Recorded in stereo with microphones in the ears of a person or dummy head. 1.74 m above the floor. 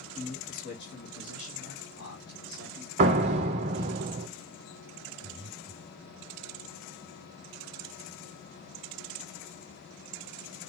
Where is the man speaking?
35° left (ahead or behind), 1.2 m; by 2.9 s 80° left, 2.5 m.